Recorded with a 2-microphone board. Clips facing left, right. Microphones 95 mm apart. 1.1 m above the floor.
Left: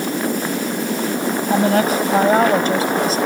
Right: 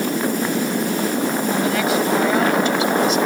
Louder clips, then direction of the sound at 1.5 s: Left 6 dB; 45° left (ahead or behind).